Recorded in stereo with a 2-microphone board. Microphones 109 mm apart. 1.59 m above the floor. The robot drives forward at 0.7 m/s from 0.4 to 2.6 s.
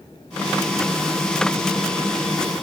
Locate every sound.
Only background noise.